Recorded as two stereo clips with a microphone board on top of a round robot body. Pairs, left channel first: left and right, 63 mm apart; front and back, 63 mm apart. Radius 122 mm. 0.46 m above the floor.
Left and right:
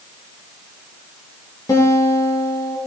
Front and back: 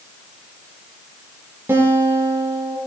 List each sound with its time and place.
1.7 s a guitar: 125° left, 3 m